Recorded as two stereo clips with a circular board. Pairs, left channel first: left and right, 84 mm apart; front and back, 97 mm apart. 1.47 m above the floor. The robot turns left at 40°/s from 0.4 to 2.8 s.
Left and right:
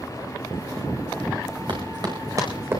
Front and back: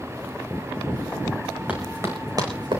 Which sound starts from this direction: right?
Running footsteps, at 1.7 s.